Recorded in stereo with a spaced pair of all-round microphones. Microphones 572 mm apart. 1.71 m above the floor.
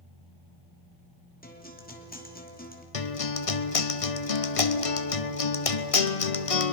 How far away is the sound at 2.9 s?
About 1.1 m.